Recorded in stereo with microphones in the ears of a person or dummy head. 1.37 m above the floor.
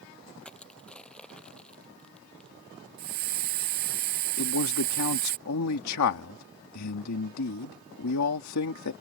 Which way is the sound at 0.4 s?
5° left (ahead or behind).